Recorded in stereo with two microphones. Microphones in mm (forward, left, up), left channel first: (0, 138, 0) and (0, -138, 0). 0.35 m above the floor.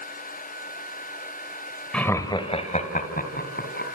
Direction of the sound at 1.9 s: 5° left (ahead or behind).